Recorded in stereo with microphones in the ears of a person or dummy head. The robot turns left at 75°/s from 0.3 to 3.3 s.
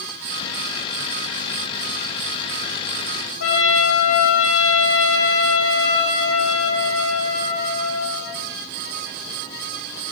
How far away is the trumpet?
About 1.0 m.